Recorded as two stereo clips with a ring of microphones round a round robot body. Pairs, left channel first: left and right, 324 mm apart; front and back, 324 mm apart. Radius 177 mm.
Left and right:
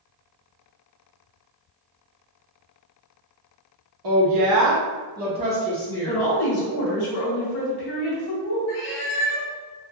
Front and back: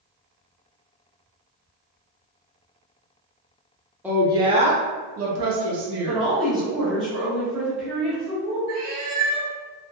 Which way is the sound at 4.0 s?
95° right.